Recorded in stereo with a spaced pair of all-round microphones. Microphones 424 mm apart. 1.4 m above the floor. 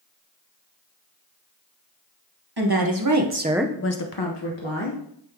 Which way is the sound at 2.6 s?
60° right (ahead or behind).